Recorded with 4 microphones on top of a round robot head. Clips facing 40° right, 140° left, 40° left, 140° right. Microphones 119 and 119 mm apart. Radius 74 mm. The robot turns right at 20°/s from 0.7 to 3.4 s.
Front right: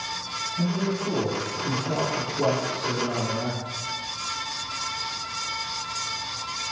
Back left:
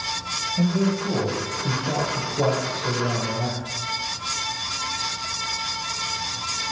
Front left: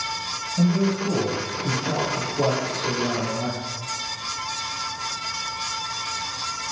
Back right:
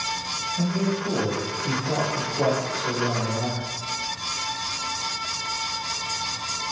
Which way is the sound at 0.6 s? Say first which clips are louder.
Back left 4 dB, front left 4 dB; 95° left.